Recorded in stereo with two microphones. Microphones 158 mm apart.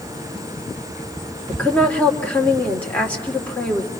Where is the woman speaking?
10° left (ahead or behind), 2.5 m.